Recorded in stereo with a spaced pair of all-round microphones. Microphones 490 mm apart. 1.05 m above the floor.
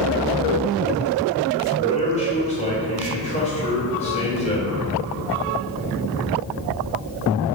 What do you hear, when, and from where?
1.8 s a man speaking: 15° left (ahead or behind), 3 m